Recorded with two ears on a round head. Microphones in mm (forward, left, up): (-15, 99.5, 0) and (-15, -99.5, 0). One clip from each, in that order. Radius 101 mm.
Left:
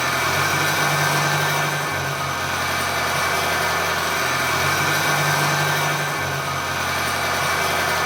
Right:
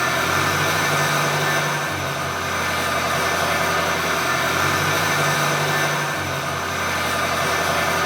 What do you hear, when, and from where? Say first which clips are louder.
0.0 s an engine running: right 1 dB; 35° left (ahead or behind), 3 m